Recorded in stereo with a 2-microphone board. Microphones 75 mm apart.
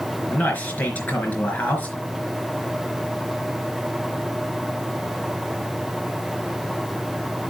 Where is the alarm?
No alarm in this recording.